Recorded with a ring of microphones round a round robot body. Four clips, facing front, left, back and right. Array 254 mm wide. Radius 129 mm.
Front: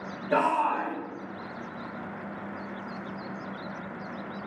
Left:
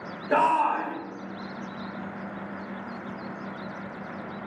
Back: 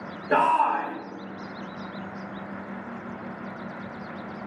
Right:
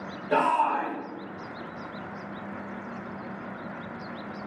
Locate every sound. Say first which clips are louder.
0.3 s a shout: left 1 dB, back 4 dB; 160° left, 1.2 m